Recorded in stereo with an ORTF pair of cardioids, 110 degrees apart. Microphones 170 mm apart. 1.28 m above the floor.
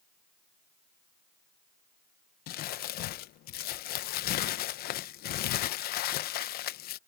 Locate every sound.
2.5 s crumpling: 65° left